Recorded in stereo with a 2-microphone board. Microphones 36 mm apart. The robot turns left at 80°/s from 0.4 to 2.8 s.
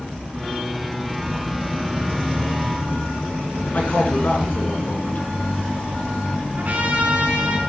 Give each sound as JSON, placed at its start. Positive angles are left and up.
{"t": 3.7, "sound": "a man speaking", "side_deg": 55, "distance_m": 3.5}
{"t": 6.6, "sound": "a trumpet", "side_deg": -50, "distance_m": 3.5}